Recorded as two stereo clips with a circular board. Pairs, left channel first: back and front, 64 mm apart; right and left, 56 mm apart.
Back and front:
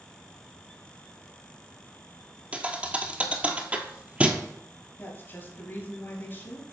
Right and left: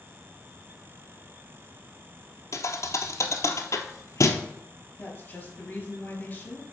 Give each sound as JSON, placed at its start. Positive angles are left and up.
{"t": 2.5, "sound": "a thud", "azimuth_deg": -70, "distance_m": 0.7}
{"t": 5.0, "sound": "a woman speaking", "azimuth_deg": -140, "distance_m": 2.0}